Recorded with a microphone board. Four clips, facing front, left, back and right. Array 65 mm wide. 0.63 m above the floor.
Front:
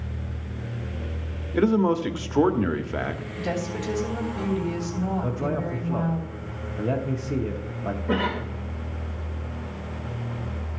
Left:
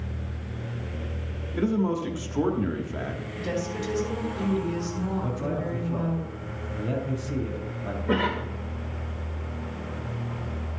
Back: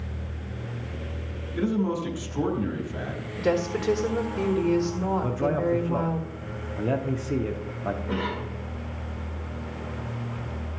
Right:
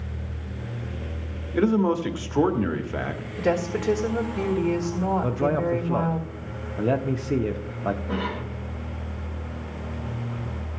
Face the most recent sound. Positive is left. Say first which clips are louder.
# left 4 dB, front 4 dB
turn(degrees=60)